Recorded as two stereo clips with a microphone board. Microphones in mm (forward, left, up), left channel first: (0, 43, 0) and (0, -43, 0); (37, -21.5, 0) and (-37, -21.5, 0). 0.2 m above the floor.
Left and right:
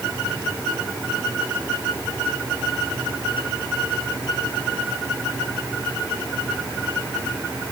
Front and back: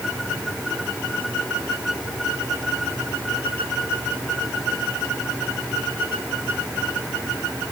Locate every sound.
Only background noise.